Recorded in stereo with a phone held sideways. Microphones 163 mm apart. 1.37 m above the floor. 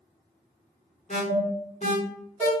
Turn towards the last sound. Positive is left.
turn(degrees=45)  # may be behind; listen again after turning